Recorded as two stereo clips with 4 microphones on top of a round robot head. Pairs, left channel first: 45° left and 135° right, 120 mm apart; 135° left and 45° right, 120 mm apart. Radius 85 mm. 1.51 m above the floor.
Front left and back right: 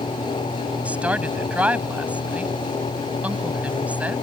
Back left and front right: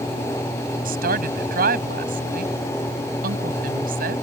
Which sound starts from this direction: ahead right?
A woman speaking, at 0.8 s.